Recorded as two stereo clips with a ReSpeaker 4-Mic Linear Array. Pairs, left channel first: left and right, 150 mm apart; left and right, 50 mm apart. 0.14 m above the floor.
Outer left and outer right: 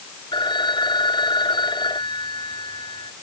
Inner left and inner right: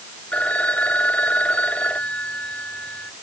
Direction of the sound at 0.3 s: 30° left (ahead or behind).